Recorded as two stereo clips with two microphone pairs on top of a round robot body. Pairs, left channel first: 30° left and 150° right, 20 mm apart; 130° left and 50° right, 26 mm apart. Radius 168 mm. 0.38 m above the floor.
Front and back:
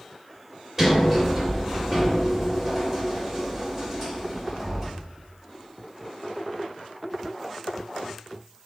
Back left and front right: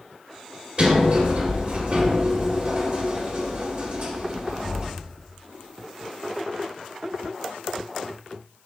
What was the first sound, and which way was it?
A sliding door, 65° right.